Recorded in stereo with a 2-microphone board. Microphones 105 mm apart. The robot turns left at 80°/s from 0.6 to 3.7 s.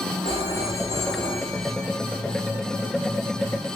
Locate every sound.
0.2 s a phone ringing: 90° right, 8.5 m; by 1.9 s 165° left, 8.5 m